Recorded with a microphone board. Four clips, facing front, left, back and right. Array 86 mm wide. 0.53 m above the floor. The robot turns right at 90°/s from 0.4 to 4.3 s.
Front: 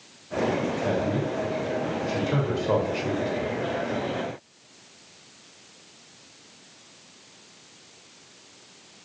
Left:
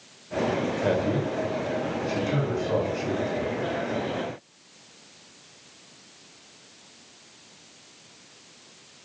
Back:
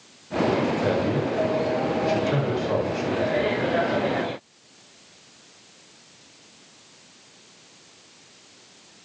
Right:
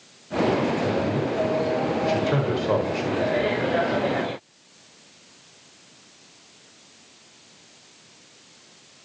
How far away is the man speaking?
About 2.5 m.